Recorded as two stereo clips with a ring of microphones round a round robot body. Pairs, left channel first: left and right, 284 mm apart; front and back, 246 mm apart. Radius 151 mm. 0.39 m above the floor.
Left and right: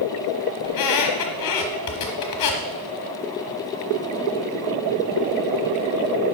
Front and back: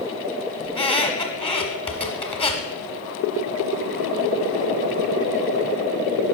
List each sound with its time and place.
0.6 s a squeak: 70° left, 1.2 m